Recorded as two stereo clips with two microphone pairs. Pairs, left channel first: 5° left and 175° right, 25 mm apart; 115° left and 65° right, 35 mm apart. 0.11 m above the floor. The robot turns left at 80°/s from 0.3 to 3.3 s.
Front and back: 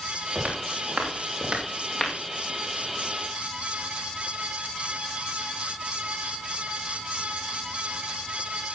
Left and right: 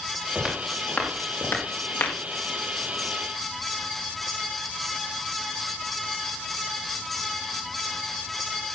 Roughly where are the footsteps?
Behind right.